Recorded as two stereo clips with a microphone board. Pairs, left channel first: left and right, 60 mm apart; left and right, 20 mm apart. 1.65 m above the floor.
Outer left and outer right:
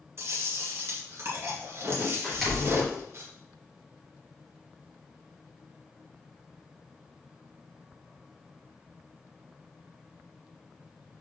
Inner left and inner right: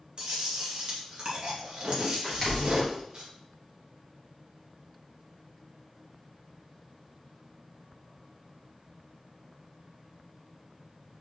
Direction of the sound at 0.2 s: 45° right (ahead or behind).